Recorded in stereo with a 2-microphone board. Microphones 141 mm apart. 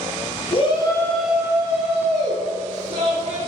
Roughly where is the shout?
Left.